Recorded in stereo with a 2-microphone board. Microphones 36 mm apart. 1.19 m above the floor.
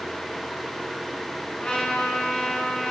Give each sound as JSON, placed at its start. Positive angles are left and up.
{"t": 1.6, "sound": "a trumpet", "side_deg": 30, "distance_m": 8.0}